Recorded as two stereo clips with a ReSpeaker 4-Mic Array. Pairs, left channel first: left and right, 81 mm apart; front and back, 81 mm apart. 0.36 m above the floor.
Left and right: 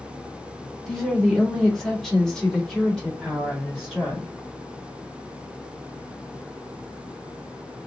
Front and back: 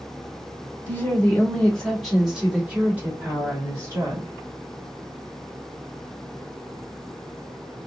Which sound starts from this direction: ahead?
A woman speaking, at 0.9 s.